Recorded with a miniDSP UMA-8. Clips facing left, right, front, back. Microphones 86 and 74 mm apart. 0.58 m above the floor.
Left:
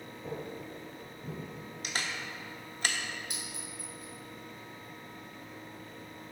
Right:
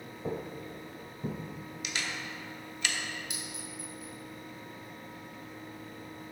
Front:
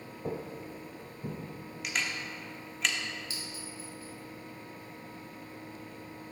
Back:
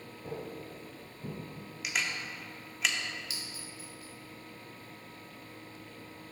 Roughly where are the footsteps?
Ahead right.